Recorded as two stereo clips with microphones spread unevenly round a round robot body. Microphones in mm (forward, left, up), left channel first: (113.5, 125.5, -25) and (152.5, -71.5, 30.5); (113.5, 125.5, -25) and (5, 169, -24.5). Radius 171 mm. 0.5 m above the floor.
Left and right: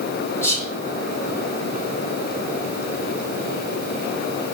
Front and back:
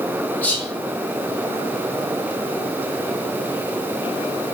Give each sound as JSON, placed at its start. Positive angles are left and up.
{"t": 0.4, "sound": "whispering", "azimuth_deg": 50, "distance_m": 1.6}